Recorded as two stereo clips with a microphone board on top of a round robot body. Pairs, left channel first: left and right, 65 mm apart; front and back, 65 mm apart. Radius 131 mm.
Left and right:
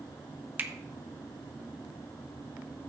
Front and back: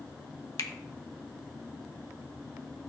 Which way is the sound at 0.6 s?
30° right.